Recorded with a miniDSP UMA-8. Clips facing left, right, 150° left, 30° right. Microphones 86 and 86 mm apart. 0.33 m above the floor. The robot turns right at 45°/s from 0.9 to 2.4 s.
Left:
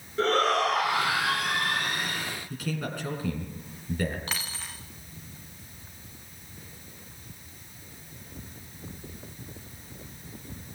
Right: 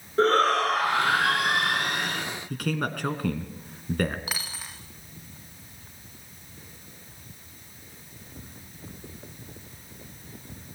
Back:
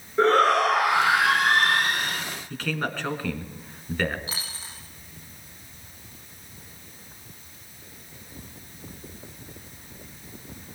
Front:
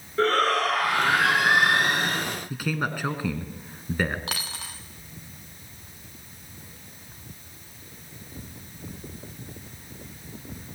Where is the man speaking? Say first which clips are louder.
Right 6 dB, back 1 dB; 110° right, 3.5 m.